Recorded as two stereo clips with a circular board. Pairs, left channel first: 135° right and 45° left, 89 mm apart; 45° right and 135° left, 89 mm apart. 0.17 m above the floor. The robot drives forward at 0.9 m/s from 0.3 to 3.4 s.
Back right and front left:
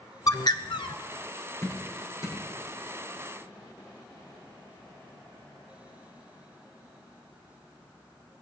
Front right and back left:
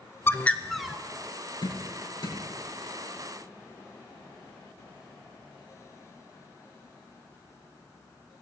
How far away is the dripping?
About 7.5 m.